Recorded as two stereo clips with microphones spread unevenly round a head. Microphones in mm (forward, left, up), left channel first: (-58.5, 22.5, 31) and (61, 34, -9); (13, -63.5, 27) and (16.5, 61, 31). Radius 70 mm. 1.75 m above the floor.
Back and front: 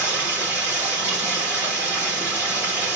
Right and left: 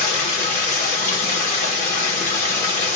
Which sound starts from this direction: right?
Running water, at 0.0 s.